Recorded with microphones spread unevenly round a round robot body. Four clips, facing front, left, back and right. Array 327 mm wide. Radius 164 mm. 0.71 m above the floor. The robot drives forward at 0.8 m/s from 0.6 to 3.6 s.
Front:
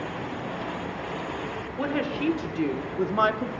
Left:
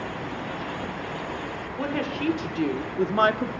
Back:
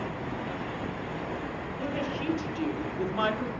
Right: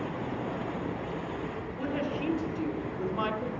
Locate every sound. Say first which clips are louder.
1.8 s a woman speaking: left 4 dB, front 6 dB; 35° left, 2 m; by 3.5 s 75° left, 1.3 m